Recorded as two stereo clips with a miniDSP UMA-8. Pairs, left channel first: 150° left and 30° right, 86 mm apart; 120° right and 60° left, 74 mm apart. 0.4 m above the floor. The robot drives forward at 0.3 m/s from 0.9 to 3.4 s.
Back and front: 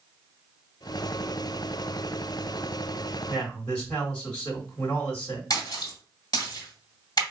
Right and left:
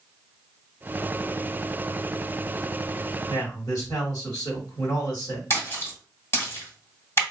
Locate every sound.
3.3 s a man speaking: 135° right, 2.5 m
5.5 s a splash: 170° right, 1.7 m